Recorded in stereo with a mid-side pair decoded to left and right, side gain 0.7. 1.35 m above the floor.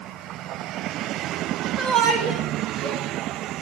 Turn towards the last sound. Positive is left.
turn(degrees=-50)